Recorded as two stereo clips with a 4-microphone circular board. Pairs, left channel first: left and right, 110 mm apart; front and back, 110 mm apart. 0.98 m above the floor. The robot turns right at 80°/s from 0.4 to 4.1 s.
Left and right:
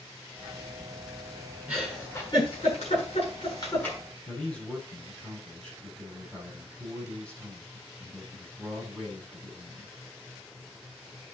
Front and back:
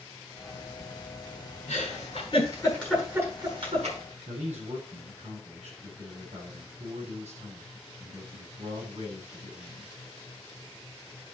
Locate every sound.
1.7 s a giggle: 15° right, 7.5 m; by 4.0 s 170° left, 7.5 m
4.3 s a man speaking: 170° left, 7 m